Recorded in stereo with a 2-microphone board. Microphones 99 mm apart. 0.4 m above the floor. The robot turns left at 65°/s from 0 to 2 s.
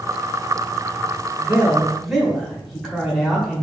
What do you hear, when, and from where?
1.4 s a man speaking: 145° right, 1.1 m; by 3.6 s 175° left, 1.1 m